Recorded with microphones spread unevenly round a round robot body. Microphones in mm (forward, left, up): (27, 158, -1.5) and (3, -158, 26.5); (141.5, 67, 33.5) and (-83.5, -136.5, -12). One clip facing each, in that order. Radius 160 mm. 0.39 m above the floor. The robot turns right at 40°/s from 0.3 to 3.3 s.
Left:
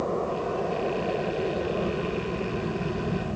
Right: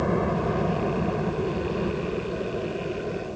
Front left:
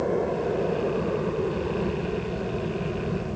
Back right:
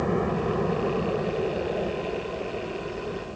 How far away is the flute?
I don't hear a flute.